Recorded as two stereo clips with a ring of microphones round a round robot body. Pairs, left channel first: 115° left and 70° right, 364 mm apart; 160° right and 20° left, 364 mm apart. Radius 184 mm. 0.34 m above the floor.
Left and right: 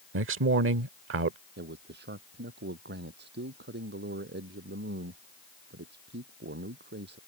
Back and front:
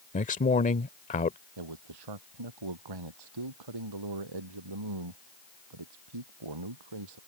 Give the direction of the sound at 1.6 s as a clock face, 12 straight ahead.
12 o'clock.